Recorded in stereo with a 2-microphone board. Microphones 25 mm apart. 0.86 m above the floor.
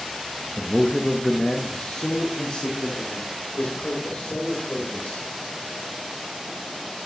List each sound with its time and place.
0.6 s a man speaking: 20° right (ahead or behind), 0.6 m; by 5.3 s 80° left, 3 m